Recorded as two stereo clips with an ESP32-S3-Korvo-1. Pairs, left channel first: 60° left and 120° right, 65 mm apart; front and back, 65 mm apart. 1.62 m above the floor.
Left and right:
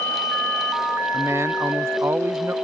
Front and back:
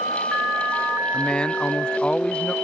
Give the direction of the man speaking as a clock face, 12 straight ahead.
2 o'clock.